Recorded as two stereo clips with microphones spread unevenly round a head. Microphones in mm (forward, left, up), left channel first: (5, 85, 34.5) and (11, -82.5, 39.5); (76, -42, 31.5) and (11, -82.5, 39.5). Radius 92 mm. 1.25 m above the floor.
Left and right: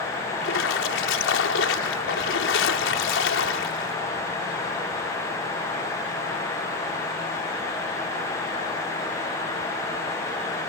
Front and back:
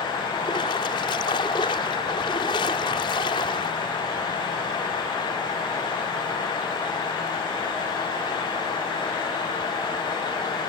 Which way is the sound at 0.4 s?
80° left.